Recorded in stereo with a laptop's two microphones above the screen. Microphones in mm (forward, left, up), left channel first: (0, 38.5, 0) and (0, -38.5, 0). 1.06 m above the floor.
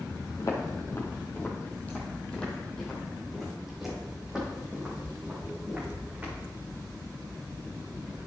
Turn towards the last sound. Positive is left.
turn(degrees=-15)  # may be behind; listen again after turning